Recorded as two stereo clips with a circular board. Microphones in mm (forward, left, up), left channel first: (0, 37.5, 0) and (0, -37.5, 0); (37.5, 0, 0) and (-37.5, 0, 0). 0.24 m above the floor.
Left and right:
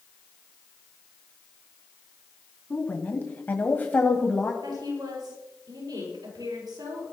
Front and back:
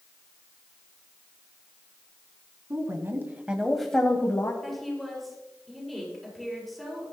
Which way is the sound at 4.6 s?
90° right.